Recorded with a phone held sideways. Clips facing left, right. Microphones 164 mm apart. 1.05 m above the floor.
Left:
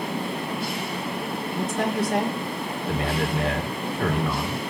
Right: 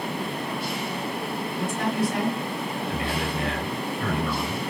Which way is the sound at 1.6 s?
75° left (ahead or behind).